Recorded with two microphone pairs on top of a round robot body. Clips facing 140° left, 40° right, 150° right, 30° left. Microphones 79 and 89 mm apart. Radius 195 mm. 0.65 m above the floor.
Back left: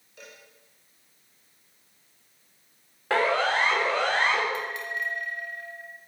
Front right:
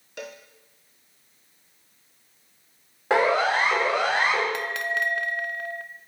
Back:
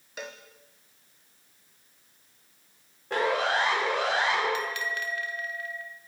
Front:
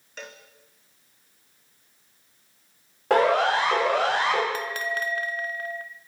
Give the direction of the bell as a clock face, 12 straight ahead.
1 o'clock.